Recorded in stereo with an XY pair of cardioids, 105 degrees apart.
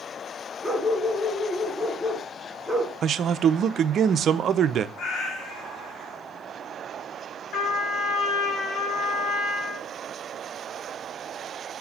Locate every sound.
0.6 s a dog barking: 5° left, 3.5 m
3.0 s a man speaking: 55° right, 0.8 m
5.0 s a cat meowing: 65° left, 4 m
7.5 s a trumpet: 70° left, 6 m